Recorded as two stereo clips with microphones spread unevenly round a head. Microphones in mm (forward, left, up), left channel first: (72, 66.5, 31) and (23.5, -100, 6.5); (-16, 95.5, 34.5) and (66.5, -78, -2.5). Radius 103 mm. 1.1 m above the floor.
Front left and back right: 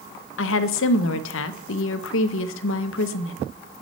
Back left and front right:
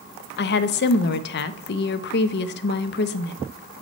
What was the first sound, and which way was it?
A woman speaking, 80° left.